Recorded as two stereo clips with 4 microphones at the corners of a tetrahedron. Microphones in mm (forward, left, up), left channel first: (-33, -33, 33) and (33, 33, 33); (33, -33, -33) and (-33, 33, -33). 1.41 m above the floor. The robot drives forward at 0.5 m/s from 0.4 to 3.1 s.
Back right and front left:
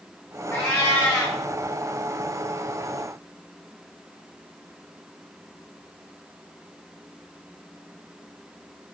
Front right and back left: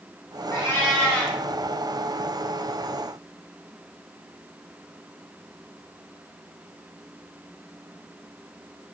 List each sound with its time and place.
0.5 s a cat meowing: 80° right, 1.7 m; by 1.4 s 105° right, 1.7 m